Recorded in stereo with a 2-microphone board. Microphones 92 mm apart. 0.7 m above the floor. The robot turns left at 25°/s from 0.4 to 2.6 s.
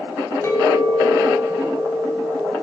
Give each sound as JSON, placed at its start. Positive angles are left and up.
{"t": 0.4, "sound": "a clink", "azimuth_deg": 30, "distance_m": 2.5}